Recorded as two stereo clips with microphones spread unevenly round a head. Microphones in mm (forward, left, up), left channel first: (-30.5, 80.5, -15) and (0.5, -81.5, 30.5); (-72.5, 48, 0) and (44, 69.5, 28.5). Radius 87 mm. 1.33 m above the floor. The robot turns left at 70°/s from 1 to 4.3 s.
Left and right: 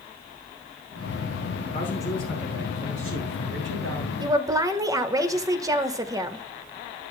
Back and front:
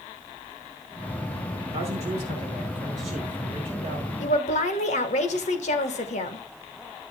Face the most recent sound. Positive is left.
turn(degrees=-150)